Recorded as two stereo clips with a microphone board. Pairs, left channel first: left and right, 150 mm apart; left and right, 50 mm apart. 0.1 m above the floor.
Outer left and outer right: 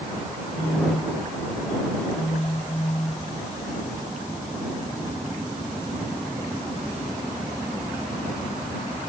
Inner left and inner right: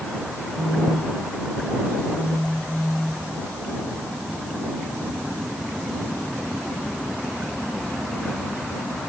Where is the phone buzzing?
35° left (ahead or behind).